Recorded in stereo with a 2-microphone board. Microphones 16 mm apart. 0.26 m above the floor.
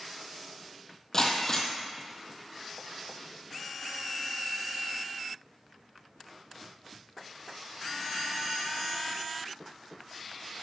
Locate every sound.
1.1 s breaking glass: 25° left (ahead or behind), 1.4 m